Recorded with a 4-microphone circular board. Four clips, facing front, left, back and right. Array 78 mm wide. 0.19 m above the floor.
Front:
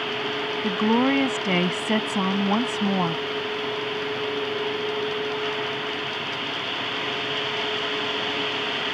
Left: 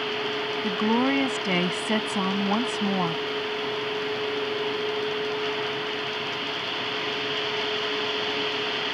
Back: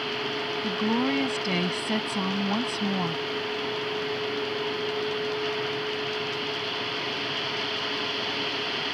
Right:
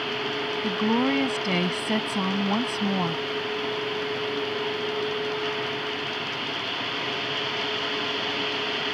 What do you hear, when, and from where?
0.6 s a woman speaking: 20° left